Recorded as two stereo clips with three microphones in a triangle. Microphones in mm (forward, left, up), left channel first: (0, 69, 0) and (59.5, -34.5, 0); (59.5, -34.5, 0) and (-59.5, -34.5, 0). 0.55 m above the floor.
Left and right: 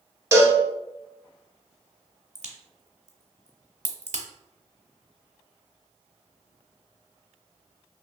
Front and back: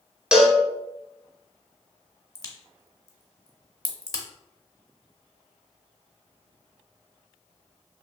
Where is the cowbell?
100° right, 0.5 m.